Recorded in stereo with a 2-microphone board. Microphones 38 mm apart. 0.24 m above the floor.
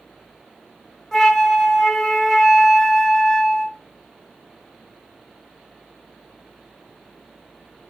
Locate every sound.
1.1 s a flute: 15° left (ahead or behind), 0.6 m